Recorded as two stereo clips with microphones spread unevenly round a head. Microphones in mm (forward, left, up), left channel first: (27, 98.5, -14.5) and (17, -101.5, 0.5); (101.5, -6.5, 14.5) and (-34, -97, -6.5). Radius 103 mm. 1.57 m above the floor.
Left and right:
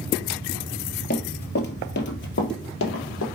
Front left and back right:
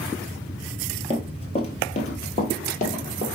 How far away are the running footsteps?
About 2.0 m.